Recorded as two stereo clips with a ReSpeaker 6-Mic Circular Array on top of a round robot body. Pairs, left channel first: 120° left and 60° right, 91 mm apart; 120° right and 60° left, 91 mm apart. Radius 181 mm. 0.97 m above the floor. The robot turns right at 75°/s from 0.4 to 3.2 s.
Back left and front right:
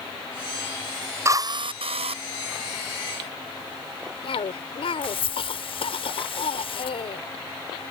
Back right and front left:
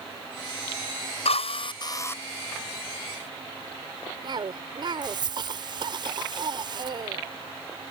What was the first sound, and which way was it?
A drill, 120° right.